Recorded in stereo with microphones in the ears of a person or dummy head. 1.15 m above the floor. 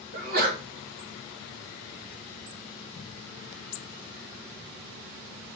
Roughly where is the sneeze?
Right.